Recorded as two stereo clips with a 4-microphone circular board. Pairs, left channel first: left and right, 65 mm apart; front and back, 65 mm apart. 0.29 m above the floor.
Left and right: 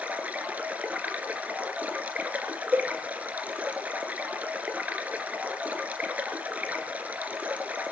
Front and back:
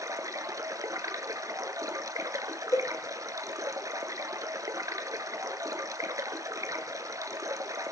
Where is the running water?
155° right, 2 m.